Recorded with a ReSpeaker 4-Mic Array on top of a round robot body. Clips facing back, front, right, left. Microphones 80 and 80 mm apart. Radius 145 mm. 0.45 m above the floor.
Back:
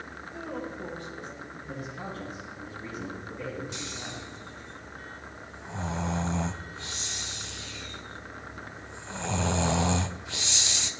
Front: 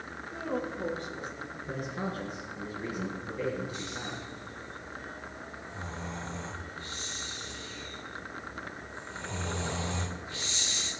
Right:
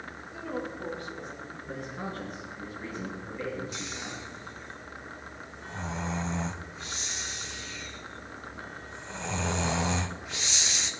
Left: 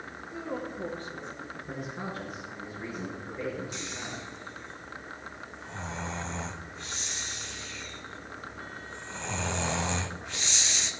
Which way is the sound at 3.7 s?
175° right.